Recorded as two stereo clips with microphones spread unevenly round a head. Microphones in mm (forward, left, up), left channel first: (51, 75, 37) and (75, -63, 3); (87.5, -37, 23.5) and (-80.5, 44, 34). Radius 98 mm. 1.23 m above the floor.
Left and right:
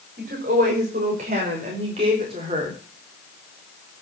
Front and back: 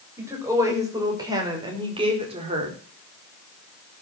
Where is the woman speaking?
130° right, 6 m; by 2.8 s 150° right, 3.5 m.